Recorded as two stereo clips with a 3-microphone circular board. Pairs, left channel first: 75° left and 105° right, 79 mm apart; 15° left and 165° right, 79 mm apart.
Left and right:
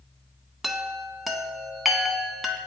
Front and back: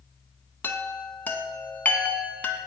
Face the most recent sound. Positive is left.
turn(degrees=-20)